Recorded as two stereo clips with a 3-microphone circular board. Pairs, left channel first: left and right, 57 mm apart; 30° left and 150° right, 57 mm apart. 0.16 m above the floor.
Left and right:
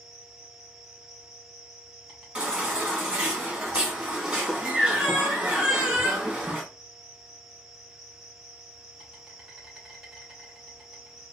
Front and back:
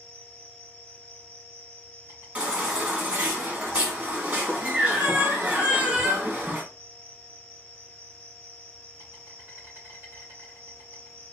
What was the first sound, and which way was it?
An insect, 175° right.